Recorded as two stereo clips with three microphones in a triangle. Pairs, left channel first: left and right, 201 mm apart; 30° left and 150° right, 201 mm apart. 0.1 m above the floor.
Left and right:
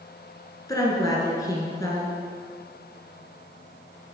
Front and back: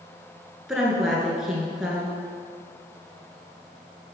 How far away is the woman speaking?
About 1.7 m.